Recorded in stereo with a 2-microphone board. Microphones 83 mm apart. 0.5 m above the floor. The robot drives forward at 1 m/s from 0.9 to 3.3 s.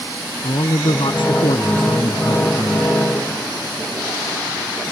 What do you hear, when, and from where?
0.4 s a man speaking: 80° left; by 3.0 s 70° left (ahead or behind)